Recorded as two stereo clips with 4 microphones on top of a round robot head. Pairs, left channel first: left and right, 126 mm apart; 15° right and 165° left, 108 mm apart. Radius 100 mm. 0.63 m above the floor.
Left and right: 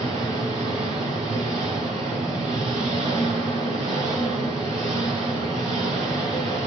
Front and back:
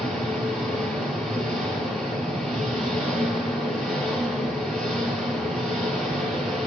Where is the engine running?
105° right, 5 m.